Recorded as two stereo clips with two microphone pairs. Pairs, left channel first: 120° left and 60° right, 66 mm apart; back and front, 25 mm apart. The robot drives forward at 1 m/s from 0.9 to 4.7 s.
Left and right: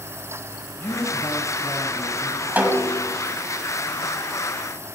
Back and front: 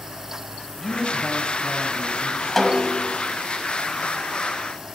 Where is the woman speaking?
110° left, 1.4 m; by 2.5 s 155° left, 2.5 m.